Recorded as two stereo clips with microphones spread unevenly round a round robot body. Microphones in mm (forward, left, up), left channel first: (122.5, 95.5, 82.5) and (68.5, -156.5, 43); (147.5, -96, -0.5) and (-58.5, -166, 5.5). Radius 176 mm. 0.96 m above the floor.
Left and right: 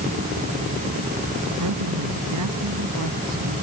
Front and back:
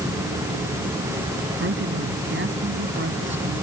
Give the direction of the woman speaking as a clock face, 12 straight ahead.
4 o'clock.